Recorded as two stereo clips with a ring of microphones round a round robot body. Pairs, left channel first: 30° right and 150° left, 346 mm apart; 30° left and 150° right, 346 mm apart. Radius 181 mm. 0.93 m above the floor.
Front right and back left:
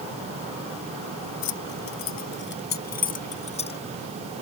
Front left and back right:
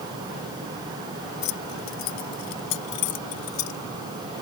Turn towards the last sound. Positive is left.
turn(degrees=45)